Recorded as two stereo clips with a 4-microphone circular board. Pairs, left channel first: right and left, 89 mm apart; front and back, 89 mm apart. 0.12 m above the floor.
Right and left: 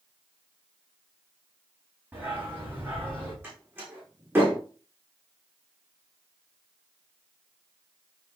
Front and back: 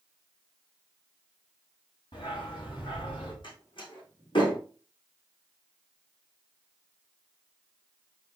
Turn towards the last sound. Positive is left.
turn(degrees=25)